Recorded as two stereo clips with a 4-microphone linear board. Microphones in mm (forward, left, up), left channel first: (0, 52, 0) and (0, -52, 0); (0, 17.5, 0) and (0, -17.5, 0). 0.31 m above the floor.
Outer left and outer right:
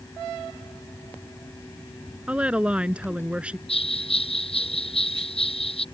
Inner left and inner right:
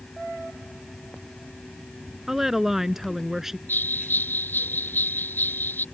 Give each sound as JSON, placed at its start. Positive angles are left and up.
{"t": 2.3, "sound": "a woman speaking", "side_deg": -10}
{"t": 3.7, "sound": "a bell", "side_deg": 70}